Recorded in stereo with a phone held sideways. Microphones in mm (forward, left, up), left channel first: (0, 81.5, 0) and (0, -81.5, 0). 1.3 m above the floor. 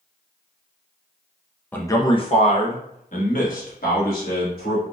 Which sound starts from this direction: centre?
A man speaking, at 1.7 s.